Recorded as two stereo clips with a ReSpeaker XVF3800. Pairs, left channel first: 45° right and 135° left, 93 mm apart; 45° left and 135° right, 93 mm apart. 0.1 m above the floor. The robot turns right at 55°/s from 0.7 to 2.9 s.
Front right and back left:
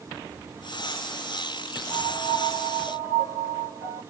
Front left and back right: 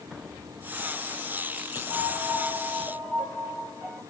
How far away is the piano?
About 1.2 m.